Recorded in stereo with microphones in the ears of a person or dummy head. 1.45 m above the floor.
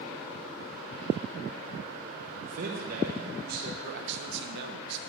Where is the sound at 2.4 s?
55° right (ahead or behind), 1.4 m.